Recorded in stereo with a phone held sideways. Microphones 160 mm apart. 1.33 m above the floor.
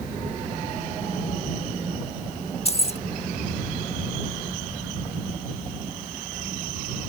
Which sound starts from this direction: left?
Keys jangling, at 2.6 s.